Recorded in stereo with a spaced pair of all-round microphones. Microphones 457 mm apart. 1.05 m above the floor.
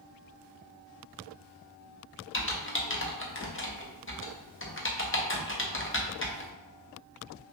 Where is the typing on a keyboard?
25° left (ahead or behind), 0.6 m.